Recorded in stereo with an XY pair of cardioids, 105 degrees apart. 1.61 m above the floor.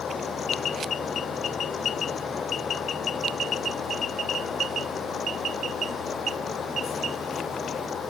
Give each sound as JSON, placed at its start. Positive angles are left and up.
{"t": 0.0, "sound": "a fan", "azimuth_deg": 45}